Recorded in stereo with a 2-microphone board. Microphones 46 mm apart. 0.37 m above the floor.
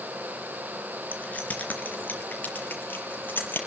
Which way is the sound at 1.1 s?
35° left (ahead or behind).